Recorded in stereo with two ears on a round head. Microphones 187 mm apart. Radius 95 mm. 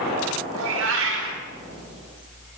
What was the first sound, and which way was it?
A cat meowing, 70° right (ahead or behind).